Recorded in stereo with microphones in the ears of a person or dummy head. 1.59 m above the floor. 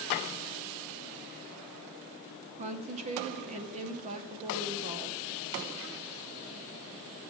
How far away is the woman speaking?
About 0.9 m.